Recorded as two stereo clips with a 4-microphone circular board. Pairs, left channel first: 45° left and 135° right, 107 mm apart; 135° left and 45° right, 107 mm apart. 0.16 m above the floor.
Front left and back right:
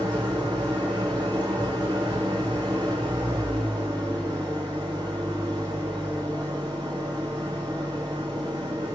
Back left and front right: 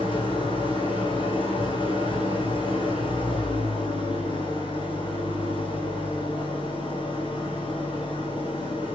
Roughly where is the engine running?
Behind.